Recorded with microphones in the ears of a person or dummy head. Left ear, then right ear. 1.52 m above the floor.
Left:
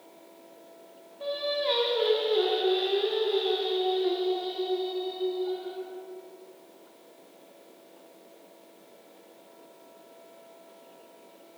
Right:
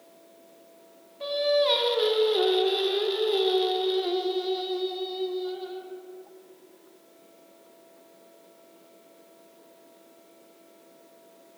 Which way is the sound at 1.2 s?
20° right (ahead or behind).